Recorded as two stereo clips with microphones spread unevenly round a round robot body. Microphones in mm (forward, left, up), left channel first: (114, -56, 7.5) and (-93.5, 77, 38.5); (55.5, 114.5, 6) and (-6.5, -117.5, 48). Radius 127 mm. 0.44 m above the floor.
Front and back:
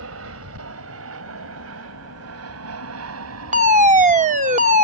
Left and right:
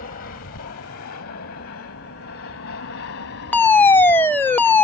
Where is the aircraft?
120° left; by 4.8 s 115° left.